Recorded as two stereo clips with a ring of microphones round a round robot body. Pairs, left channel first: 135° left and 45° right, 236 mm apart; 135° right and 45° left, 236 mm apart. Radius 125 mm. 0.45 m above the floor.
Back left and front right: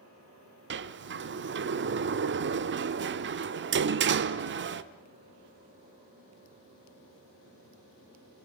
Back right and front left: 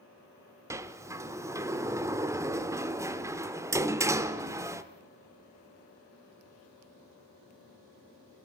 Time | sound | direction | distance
0.7 | a sliding door | 30° right | 0.8 m